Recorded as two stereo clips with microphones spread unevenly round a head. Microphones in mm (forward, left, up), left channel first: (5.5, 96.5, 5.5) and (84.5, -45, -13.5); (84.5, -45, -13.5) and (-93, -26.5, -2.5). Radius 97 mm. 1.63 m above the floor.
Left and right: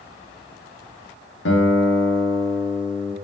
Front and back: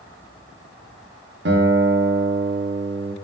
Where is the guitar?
135° left, 1.2 m.